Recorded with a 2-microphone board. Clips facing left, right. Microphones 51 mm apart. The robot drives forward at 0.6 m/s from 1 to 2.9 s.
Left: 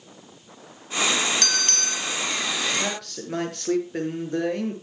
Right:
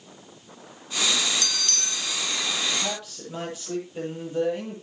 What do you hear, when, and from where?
1.4 s a bell: 60° left (ahead or behind), 0.6 m; by 2.2 s 35° left (ahead or behind), 0.9 m
2.7 s a man speaking: 75° left (ahead or behind), 7.5 m